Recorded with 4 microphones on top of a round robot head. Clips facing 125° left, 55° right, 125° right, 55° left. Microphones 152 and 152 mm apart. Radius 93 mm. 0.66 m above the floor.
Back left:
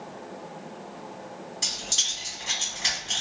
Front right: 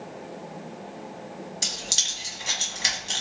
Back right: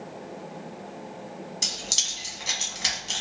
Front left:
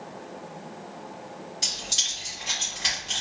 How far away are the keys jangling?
About 1.5 m.